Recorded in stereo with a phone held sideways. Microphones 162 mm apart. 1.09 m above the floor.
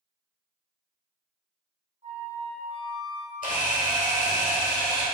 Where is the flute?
45° right (ahead or behind), 1.9 m.